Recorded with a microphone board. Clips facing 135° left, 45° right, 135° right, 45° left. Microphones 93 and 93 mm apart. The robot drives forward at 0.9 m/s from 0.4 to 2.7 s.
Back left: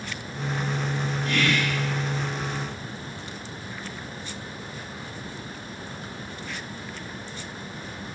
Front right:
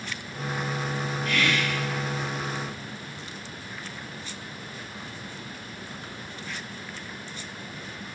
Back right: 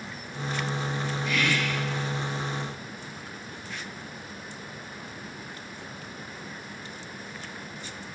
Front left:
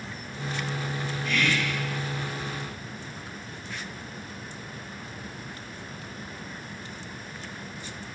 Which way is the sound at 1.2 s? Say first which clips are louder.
Back left 2 dB, front left 1 dB; 145° left.